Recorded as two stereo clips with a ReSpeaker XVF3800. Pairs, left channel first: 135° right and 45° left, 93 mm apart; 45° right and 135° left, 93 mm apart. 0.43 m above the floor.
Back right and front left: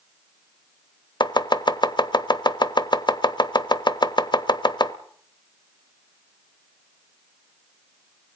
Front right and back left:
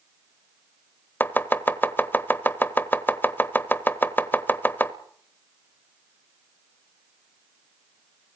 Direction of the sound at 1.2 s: 110° right.